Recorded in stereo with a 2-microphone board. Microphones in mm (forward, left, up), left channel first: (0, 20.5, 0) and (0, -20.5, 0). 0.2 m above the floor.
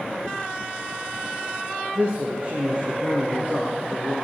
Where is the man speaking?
40° right (ahead or behind), 2.5 m.